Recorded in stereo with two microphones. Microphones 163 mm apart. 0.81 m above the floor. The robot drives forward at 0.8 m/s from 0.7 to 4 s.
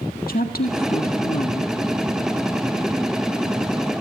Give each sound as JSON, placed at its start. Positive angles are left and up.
{"t": 0.3, "sound": "a woman speaking", "side_deg": 65, "distance_m": 1.9}